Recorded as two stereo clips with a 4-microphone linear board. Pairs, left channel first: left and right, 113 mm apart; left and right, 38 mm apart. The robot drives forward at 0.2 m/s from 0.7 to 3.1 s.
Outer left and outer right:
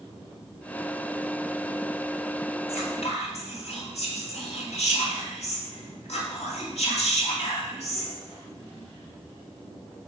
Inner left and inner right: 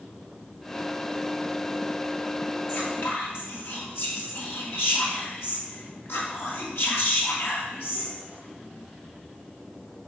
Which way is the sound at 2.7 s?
65° left (ahead or behind).